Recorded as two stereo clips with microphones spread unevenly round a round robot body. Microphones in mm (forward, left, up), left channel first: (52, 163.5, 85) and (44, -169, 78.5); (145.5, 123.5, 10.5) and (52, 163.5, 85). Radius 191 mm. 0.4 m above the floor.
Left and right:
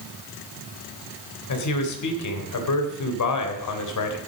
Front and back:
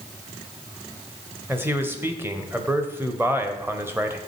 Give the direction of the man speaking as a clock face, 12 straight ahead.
10 o'clock.